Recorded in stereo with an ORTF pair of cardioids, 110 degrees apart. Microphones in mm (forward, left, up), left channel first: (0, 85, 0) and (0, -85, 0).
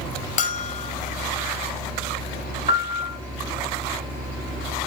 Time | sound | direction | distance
0.4 | a bell | 50° left | 0.6 m
2.7 | a piano | 20° right | 1.8 m